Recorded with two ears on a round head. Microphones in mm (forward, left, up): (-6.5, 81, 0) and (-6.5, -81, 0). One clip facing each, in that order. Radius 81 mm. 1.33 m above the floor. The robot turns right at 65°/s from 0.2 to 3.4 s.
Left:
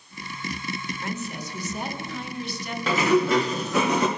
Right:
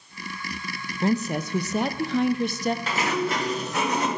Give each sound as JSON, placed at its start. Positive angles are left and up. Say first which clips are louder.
{"t": 1.0, "sound": "a woman speaking", "louder": "right 13 dB", "azimuth_deg": -150, "distance_m": 0.6}
{"t": 2.9, "sound": "a sliding door", "louder": "left 6 dB", "azimuth_deg": 70, "distance_m": 1.3}